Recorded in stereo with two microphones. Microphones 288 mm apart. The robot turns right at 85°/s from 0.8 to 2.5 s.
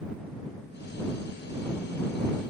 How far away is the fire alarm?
No fire alarm in this recording.